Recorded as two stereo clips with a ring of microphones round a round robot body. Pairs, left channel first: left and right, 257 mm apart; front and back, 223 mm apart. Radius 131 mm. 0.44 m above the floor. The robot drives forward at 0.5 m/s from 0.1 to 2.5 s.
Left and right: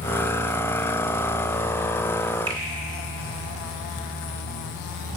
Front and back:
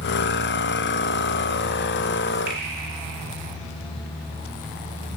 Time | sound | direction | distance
2.5 | a finger snap | 160° right | 1.6 m